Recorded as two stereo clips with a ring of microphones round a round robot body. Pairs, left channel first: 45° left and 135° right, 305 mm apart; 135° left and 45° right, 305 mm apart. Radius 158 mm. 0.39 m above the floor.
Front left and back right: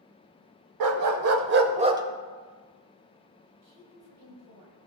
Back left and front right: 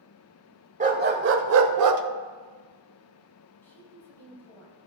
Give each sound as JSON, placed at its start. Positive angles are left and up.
{"t": 0.8, "sound": "a dog barking", "azimuth_deg": -110, "distance_m": 0.9}
{"t": 3.6, "sound": "a woman speaking", "azimuth_deg": -140, "distance_m": 3.0}